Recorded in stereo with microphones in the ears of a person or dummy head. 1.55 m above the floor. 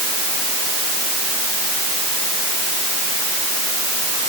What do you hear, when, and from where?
Only background noise.